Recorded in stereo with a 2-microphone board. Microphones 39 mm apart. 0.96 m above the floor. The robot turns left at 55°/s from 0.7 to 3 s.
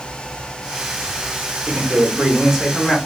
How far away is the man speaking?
About 1.5 m.